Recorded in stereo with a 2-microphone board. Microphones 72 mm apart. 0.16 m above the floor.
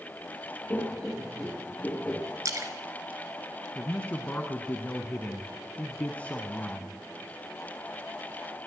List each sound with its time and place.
0.7 s laughter: 20° left (ahead or behind), 1.7 m
2.5 s a splash: 50° right (ahead or behind), 1.4 m
3.8 s a man speaking: 20° left (ahead or behind), 1.1 m